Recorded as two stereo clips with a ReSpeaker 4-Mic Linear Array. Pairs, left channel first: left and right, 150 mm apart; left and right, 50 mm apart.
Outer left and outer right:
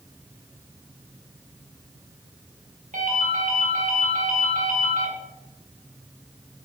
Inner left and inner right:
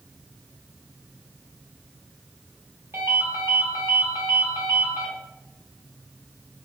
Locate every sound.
2.9 s a ringtone: 55° right (ahead or behind), 1.3 m